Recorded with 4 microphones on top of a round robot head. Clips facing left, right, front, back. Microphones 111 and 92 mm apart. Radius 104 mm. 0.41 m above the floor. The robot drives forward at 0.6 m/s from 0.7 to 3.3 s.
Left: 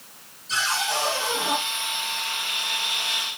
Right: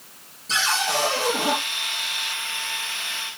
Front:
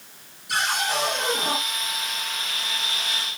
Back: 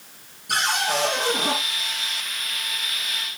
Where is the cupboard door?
130° right, 9.5 m; by 1.6 s 135° right, 10 m.